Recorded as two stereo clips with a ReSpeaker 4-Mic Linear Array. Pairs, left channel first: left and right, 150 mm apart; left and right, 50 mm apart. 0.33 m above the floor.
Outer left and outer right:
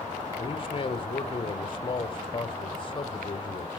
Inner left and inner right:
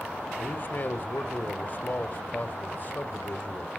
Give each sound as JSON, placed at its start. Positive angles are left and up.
{"t": 0.4, "sound": "a man speaking", "side_deg": 35, "distance_m": 1.3}